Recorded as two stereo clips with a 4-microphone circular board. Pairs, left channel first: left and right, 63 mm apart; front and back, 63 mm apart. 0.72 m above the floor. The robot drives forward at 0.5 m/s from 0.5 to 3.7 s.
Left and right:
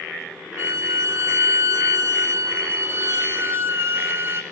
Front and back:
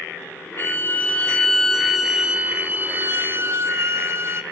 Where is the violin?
55° right, 1.1 m; by 4.4 s 140° right, 1.3 m.